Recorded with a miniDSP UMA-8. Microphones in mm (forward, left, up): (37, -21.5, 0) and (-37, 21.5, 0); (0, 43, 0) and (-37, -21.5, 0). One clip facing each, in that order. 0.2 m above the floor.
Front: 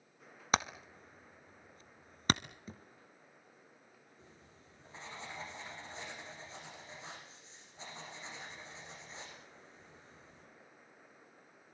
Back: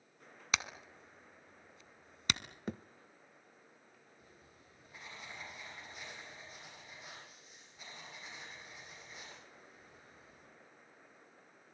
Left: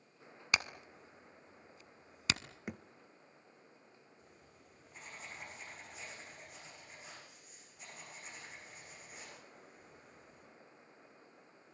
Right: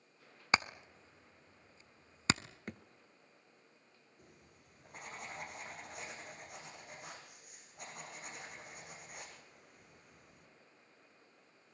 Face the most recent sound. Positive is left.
turn(degrees=-95)